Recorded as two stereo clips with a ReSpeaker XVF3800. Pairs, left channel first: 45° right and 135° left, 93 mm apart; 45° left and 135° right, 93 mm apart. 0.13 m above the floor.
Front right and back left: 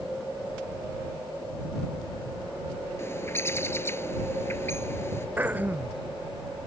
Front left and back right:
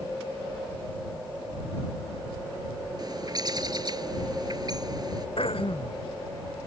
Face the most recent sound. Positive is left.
turn(degrees=65)